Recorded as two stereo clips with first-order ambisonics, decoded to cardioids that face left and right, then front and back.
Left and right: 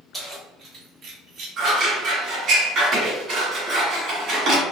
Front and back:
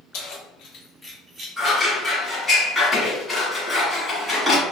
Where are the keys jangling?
5° right, 1.2 m; by 1.5 s 130° right, 0.9 m.